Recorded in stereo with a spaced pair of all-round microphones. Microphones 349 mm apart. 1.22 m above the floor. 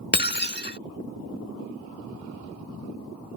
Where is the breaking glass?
30° left (ahead or behind).